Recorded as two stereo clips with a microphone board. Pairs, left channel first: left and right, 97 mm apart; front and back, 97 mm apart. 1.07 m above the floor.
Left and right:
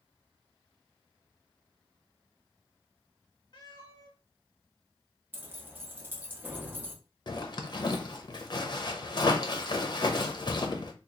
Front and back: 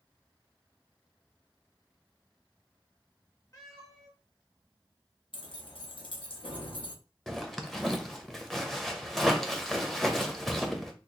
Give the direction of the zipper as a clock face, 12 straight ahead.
9 o'clock.